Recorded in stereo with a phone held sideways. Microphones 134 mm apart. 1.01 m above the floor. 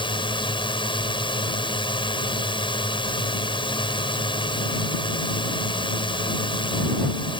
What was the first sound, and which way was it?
A drone, 40° left (ahead or behind).